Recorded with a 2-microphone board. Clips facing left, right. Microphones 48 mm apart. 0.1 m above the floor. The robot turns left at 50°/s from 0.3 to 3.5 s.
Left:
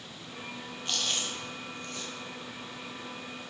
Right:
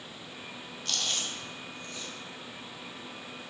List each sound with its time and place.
0.8 s chewing: 20° left (ahead or behind), 1.1 m; by 2.1 s 60° left (ahead or behind), 1.1 m